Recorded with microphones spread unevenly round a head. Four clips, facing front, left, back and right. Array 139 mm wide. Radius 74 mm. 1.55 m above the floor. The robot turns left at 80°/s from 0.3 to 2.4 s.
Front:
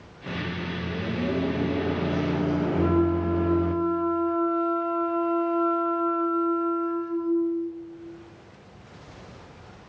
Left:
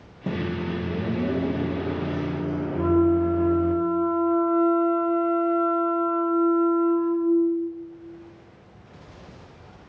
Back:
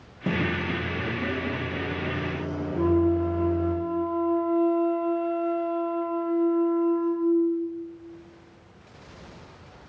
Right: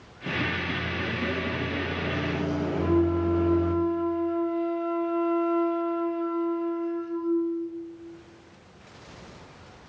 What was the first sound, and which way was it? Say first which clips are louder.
A microwave: left 2 dB, back 5 dB; 145° left.